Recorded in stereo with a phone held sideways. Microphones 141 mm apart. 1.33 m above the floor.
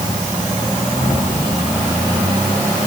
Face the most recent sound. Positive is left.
No sound to turn to.